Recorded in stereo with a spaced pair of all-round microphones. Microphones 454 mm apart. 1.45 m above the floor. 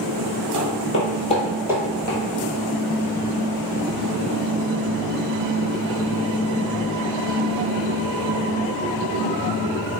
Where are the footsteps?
40° left (ahead or behind), 1.9 m; by 2.2 s 25° right (ahead or behind), 1.6 m.